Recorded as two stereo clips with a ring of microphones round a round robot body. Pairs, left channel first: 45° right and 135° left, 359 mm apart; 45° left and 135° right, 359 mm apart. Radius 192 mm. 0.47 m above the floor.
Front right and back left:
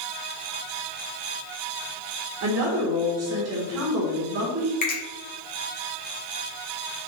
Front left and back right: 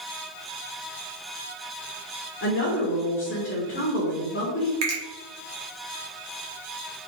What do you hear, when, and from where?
2.4 s a woman speaking: 95° left, 1.2 m
4.8 s a finger snap: 105° right, 1.7 m